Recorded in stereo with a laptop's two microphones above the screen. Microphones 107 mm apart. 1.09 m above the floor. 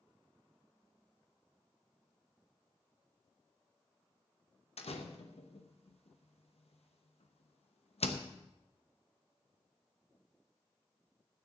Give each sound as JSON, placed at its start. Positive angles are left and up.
{"t": 4.8, "sound": "a door slam", "side_deg": 70, "distance_m": 0.9}